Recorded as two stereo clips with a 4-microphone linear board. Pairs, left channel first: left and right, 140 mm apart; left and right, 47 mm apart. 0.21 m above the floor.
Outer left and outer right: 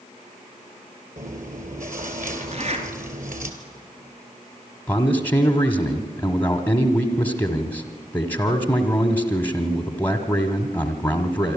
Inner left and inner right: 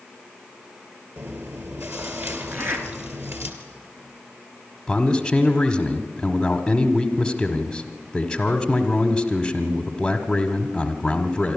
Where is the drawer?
I don't hear a drawer.